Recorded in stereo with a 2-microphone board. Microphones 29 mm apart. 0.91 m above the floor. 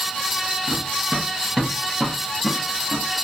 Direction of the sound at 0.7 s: 25° right (ahead or behind).